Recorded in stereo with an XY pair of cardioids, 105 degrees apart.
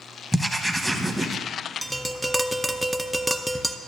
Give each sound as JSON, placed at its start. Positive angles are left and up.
{"t": 0.3, "sound": "writing", "azimuth_deg": -10, "distance_m": 1.0}
{"t": 1.8, "sound": "tapping", "azimuth_deg": -10, "distance_m": 0.5}